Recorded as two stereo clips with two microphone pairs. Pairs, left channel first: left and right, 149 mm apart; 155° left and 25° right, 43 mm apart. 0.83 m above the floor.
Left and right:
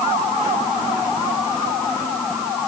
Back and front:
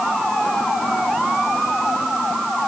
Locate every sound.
Only background noise.